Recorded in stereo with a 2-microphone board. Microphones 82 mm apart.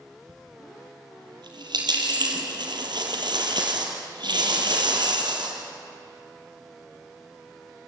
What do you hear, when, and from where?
0.3 s a dropped coin: 75° right (ahead or behind), 4 m